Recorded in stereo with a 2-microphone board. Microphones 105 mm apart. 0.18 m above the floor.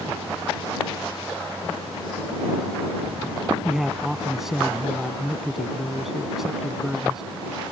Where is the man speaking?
5° right (ahead or behind).